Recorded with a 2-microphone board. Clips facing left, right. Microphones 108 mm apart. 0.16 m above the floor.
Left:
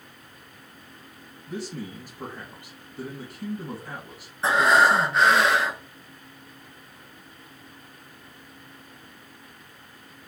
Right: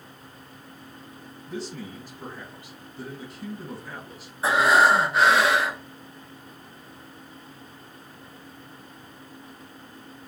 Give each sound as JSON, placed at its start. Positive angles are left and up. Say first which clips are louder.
{"t": 1.5, "sound": "a man speaking", "louder": "left 1 dB", "side_deg": 60, "distance_m": 3.0}
{"t": 4.4, "sound": "breathing", "louder": "even", "side_deg": -5, "distance_m": 1.4}